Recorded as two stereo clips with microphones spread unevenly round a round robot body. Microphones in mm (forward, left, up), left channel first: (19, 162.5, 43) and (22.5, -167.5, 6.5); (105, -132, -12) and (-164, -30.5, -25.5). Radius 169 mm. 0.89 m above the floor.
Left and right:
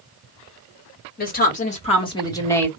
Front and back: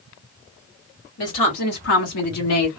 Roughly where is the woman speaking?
Ahead left.